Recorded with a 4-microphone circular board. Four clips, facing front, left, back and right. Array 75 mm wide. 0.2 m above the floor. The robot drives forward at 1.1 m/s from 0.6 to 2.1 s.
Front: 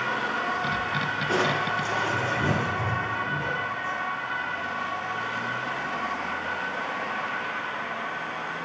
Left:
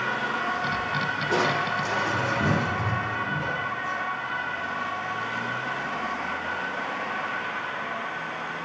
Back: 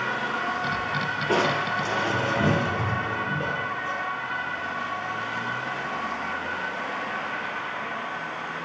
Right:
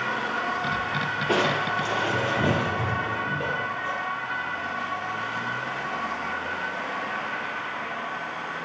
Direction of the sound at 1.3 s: 120° right.